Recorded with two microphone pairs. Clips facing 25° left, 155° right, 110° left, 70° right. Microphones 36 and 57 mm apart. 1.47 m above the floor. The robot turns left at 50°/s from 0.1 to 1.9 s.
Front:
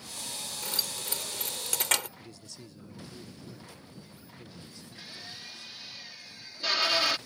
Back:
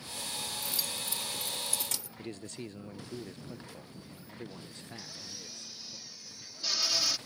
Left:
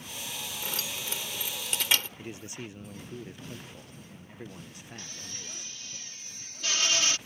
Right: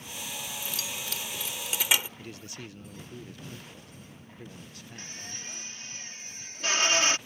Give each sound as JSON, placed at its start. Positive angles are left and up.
{"t": 0.6, "sound": "keys jangling", "azimuth_deg": 70}
{"t": 2.2, "sound": "a man speaking", "azimuth_deg": 175}
{"t": 5.0, "sound": "a drill", "azimuth_deg": -20}